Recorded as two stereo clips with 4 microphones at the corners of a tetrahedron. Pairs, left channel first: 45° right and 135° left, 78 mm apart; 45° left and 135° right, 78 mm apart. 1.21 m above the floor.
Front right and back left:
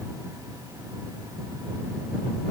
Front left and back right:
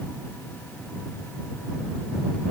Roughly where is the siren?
No siren in this recording.